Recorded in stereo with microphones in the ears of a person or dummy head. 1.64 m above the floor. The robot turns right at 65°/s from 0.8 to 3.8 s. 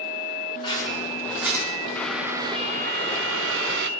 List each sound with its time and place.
0.6 s scissors: 30° left (ahead or behind), 5.5 m; by 1.6 s 20° right (ahead or behind), 5.5 m
1.9 s boiling: 170° left, 0.6 m; by 3.9 s 70° right, 0.6 m